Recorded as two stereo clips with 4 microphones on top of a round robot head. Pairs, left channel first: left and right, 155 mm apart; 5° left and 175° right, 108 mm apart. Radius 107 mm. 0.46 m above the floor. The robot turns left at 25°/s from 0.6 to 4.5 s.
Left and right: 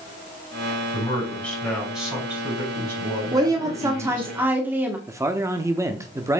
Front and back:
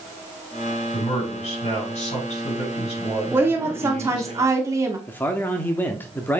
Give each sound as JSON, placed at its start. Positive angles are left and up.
{"t": 0.9, "sound": "a man speaking", "azimuth_deg": 20, "distance_m": 5.5}
{"t": 3.3, "sound": "a woman speaking", "azimuth_deg": -130, "distance_m": 1.3}
{"t": 5.1, "sound": "a man speaking", "azimuth_deg": -45, "distance_m": 0.9}